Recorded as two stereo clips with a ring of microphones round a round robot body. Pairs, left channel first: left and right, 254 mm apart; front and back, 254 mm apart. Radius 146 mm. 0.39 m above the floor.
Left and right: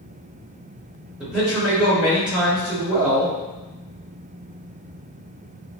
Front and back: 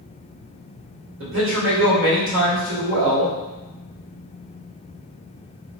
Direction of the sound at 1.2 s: 175° right.